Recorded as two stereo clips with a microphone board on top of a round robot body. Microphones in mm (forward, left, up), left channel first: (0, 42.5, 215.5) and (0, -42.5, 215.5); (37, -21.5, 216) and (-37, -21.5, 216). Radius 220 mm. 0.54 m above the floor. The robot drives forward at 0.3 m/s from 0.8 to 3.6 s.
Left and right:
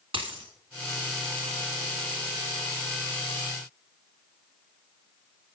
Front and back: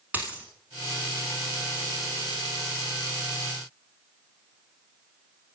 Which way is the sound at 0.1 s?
110° right.